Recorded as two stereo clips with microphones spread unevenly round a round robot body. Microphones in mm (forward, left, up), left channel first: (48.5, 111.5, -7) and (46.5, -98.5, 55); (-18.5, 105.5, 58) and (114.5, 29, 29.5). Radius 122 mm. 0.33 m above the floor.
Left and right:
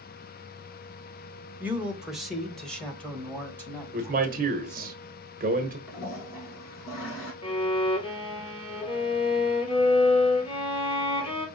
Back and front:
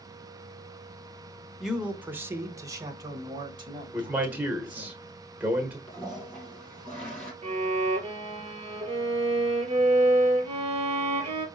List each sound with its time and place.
1.6 s a man speaking: 20° left, 0.9 m
3.9 s a man speaking: 65° right, 1.2 m
5.9 s a toilet flushing: 65° left, 3 m
7.4 s a violin: 20° left, 1.8 m